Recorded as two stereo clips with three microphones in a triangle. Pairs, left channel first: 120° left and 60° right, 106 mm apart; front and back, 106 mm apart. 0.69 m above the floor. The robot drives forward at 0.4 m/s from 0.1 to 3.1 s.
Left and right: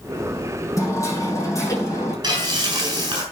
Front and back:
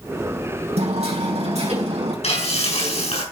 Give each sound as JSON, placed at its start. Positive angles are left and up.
{"t": 0.8, "sound": "hammering", "azimuth_deg": 180, "distance_m": 3.5}
{"t": 2.2, "sound": "frying", "azimuth_deg": -10, "distance_m": 7.0}